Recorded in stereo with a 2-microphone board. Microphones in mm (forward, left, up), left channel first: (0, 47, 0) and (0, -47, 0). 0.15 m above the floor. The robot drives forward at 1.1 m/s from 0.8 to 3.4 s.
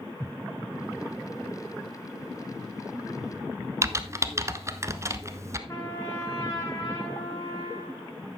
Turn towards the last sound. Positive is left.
turn(degrees=30)  # may be behind; listen again after turning